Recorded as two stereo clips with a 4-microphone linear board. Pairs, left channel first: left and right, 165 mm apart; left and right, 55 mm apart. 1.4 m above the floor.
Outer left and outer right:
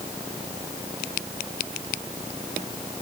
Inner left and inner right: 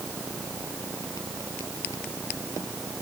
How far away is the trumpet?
I don't hear a trumpet.